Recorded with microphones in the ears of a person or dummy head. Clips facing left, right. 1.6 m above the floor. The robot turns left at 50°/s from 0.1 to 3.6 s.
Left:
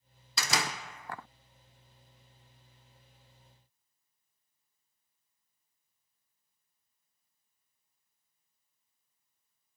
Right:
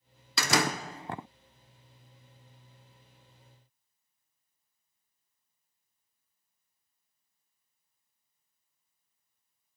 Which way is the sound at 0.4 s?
125° right.